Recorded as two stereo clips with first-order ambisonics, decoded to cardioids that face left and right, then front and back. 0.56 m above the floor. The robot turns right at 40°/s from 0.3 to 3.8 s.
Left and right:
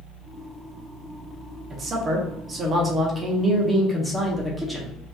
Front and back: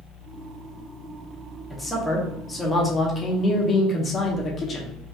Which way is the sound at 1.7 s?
85° right.